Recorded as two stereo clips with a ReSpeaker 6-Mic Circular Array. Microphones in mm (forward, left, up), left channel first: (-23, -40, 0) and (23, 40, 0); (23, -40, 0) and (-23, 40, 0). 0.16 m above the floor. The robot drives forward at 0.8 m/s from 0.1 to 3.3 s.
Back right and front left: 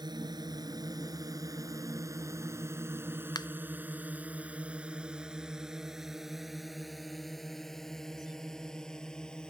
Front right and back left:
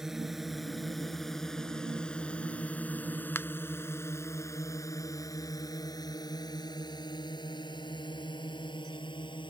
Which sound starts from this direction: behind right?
A finger snap, at 3.4 s.